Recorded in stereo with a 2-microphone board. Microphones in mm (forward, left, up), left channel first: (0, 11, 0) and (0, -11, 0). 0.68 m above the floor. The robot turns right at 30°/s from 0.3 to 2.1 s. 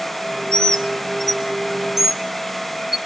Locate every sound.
0.5 s a bird: 30° left (ahead or behind), 0.6 m; by 3.0 s 20° right (ahead or behind), 0.6 m